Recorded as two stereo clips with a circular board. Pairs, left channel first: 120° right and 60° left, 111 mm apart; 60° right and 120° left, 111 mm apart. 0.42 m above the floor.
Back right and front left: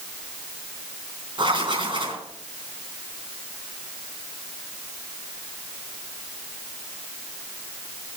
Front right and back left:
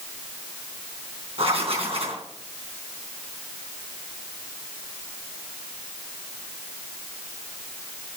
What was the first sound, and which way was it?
Writing, 100° left.